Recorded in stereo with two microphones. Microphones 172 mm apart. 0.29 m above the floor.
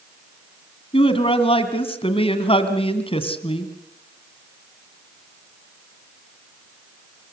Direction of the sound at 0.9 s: 35° left (ahead or behind).